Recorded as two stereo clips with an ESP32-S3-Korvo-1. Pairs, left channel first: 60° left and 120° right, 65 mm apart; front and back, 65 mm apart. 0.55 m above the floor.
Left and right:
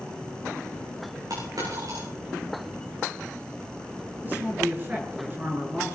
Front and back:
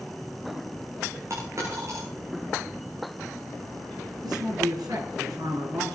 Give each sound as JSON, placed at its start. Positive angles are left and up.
{"t": 1.3, "sound": "a dropped coin", "azimuth_deg": -135, "distance_m": 9.5}
{"t": 4.2, "sound": "a woman speaking", "azimuth_deg": 180, "distance_m": 6.5}